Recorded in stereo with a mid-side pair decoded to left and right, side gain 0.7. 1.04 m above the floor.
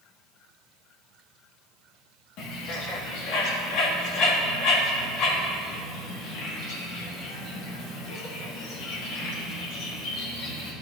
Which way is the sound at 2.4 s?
60° left.